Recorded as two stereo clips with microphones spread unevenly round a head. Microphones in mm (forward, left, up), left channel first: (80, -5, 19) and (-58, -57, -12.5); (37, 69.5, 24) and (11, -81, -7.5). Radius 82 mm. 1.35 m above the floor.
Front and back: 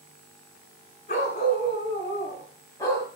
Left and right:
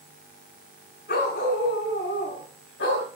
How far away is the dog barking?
About 6 m.